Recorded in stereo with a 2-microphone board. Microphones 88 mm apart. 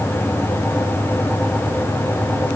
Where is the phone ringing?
No phone ringing in this recording.